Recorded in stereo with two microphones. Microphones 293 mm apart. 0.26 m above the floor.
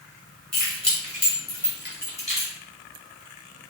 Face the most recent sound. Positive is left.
turn(degrees=20)  # may be behind; listen again after turning